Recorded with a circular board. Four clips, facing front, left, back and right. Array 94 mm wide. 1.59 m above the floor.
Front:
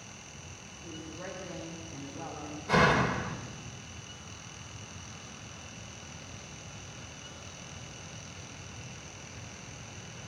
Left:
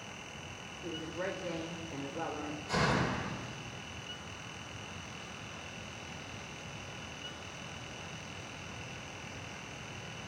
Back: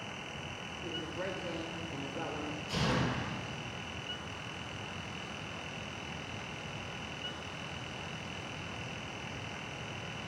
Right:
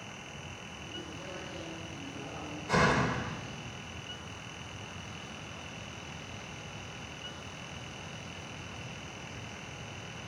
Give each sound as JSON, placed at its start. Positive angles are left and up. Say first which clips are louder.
{"t": 0.8, "sound": "a woman speaking", "louder": "left 7 dB, back 3 dB", "azimuth_deg": 125, "distance_m": 5.0}
{"t": 2.7, "sound": "a door slam", "louder": "right 4 dB, front 9 dB", "azimuth_deg": -20, "distance_m": 4.0}